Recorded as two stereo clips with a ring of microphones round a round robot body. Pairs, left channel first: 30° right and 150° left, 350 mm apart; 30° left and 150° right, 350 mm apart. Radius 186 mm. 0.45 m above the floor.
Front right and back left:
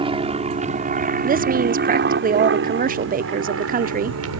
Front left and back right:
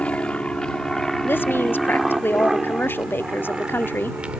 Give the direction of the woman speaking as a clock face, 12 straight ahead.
8 o'clock.